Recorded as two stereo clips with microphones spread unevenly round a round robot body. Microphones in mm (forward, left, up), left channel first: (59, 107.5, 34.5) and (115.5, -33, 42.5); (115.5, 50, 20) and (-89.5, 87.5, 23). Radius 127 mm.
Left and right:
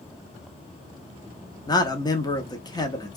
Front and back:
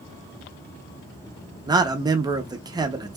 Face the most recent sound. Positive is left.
turn(degrees=115)